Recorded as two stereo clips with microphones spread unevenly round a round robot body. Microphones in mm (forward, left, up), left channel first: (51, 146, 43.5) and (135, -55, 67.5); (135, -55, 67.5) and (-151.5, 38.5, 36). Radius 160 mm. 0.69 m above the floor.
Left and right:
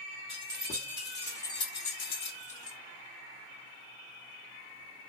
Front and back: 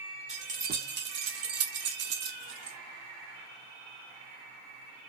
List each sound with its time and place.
0.3 s keys jangling: 135° right, 0.9 m; by 2.8 s 125° left, 0.9 m